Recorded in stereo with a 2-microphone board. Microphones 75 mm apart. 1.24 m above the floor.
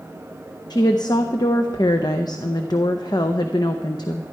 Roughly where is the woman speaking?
Left.